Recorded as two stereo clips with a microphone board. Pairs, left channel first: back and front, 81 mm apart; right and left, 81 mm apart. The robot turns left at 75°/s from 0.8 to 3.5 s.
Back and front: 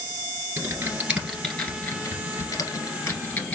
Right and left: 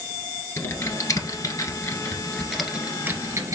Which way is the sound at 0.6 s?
50° right.